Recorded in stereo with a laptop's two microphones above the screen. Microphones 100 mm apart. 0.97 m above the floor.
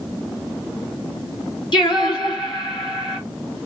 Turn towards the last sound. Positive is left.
turn(degrees=55)  # may be behind; listen again after turning